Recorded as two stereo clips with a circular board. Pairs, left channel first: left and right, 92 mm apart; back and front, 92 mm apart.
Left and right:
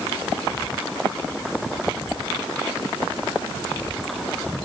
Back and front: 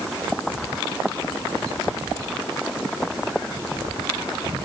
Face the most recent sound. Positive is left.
No sound to turn to.